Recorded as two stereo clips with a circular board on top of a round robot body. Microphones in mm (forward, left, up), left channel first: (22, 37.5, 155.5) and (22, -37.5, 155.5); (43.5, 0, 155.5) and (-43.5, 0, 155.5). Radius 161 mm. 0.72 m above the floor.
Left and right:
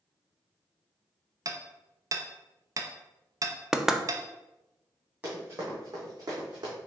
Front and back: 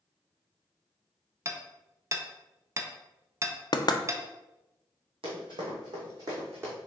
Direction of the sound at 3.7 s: 5° right.